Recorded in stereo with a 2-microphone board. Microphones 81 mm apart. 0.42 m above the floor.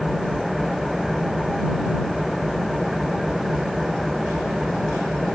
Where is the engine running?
Centre (ahead or behind).